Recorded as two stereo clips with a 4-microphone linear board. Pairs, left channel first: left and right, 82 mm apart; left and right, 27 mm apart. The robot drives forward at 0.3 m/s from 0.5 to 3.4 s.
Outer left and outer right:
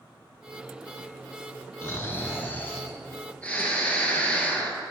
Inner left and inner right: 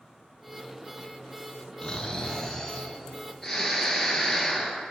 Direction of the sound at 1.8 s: 30° left (ahead or behind).